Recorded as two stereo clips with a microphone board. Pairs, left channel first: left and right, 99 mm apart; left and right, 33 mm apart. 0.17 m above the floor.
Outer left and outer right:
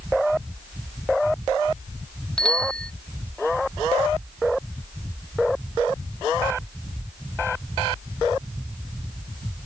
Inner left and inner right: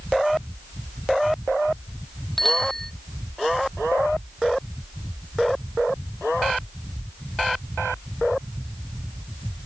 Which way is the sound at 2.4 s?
10° left (ahead or behind).